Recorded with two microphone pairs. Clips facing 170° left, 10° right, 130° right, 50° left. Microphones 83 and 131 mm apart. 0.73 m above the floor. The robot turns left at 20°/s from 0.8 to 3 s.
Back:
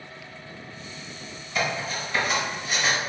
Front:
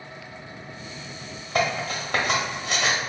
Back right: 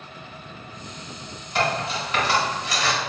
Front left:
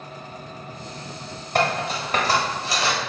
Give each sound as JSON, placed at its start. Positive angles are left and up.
{"t": 1.6, "sound": "cutlery clinking", "azimuth_deg": 15, "distance_m": 0.9}